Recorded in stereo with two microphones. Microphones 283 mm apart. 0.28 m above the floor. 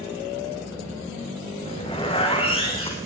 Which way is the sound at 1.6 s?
20° left (ahead or behind).